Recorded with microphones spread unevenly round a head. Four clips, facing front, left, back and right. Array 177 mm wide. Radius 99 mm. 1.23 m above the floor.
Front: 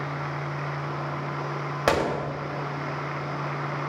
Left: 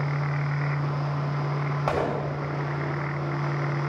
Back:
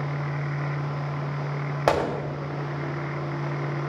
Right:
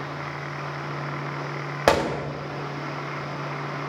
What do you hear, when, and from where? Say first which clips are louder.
1.9 s a gunshot: right 6 dB, back 1 dB; 95° right, 3.5 m